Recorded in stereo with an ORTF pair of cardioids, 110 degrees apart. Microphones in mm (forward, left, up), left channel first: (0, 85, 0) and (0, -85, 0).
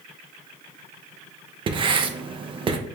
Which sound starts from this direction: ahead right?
Writing, at 1.7 s.